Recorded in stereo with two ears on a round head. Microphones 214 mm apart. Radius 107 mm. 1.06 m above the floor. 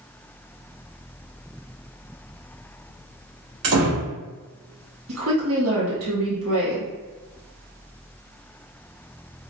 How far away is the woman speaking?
About 1.7 m.